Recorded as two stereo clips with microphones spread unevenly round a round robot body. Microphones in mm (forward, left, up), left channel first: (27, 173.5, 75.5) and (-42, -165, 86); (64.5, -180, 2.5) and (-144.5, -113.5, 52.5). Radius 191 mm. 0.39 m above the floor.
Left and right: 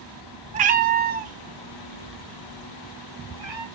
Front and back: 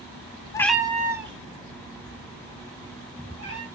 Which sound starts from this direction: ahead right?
A cat meowing, at 0.5 s.